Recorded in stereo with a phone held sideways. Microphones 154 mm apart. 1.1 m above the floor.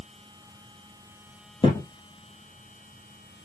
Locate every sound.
1.6 s a thud: 35° left (ahead or behind), 1.3 m